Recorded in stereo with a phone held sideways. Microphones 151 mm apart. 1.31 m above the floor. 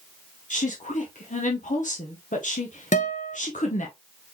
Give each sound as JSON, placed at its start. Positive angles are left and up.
{"t": 0.5, "sound": "a woman speaking", "side_deg": 60, "distance_m": 0.9}
{"t": 2.9, "sound": "a guitar", "side_deg": 55, "distance_m": 0.9}